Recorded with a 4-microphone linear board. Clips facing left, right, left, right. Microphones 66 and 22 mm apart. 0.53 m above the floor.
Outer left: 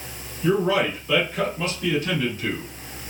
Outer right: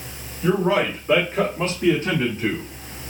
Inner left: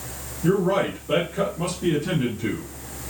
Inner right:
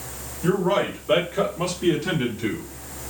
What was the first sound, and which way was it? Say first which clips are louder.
A man speaking: outer right 1 dB, even; 40° right (ahead or behind).